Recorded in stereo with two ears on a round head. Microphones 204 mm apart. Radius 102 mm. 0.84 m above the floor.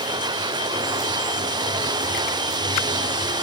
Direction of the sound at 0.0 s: 20° right (ahead or behind).